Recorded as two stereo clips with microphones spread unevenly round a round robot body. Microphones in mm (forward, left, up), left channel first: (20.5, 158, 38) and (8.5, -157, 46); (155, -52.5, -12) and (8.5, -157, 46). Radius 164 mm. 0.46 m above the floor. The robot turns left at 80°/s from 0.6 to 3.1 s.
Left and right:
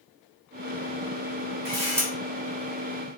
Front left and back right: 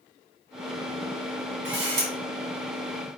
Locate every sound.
1.6 s a camera shutter: 145° right, 1.5 m; by 2.1 s straight behind, 1.5 m